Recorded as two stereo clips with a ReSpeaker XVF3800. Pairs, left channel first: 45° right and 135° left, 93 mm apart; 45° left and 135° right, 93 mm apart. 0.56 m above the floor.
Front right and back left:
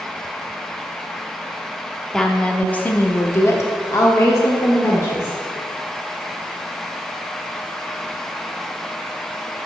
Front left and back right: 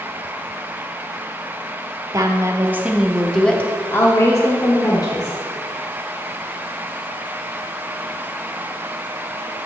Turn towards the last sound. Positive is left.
turn(degrees=10)